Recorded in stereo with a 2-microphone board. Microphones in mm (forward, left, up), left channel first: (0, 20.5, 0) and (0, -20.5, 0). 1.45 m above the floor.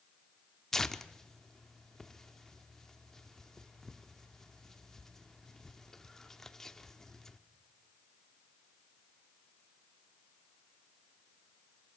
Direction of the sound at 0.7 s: 10° left (ahead or behind).